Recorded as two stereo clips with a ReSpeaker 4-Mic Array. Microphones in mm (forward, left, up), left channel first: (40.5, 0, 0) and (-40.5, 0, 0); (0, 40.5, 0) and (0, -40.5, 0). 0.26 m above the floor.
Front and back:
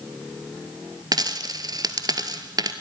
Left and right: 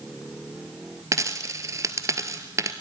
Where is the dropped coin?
140° right, 1.4 m.